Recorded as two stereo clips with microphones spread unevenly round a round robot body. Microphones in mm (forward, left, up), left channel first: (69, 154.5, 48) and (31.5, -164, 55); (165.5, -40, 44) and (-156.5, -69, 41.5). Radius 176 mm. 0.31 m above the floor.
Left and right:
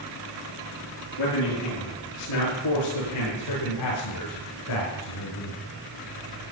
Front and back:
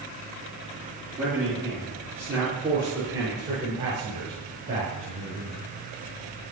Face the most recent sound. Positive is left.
turn(degrees=115)